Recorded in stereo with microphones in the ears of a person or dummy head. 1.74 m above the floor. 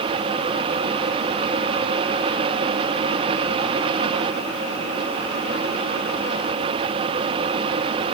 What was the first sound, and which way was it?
Only background noise.